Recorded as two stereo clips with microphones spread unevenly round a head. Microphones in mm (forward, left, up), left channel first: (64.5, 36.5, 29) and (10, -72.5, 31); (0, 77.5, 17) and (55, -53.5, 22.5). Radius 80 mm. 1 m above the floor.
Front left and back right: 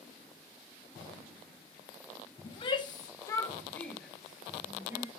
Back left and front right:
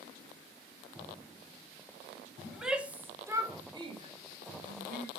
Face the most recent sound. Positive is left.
turn(degrees=-50)